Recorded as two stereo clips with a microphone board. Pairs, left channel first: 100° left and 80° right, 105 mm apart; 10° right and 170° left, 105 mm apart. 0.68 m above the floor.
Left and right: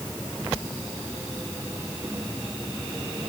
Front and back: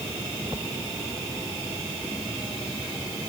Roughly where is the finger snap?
I don't hear a finger snap.